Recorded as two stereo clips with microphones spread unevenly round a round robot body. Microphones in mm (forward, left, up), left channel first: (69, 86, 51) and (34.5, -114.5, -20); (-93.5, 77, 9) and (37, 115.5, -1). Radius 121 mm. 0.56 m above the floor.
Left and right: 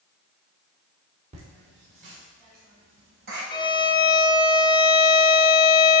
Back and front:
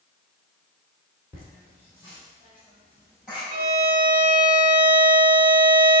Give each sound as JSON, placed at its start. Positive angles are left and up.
{"t": 1.3, "sound": "laughter", "azimuth_deg": -55, "distance_m": 2.0}
{"t": 3.5, "sound": "a violin", "azimuth_deg": 10, "distance_m": 0.8}